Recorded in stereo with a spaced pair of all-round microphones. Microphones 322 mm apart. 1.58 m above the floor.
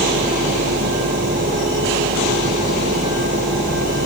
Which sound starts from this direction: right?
A fan, at 0.0 s.